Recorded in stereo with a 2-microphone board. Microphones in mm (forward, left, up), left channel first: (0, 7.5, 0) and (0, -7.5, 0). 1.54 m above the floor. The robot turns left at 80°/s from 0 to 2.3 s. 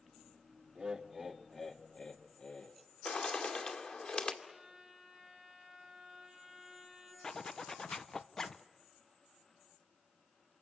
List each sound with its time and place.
0.8 s laughter: 135° right, 1.9 m; by 2.8 s 100° left, 1.9 m
3.0 s a bird: 65° left (ahead or behind), 2.5 m
4.4 s a violin: 55° right (ahead or behind), 7 m
7.2 s a zipper: 40° left (ahead or behind), 0.6 m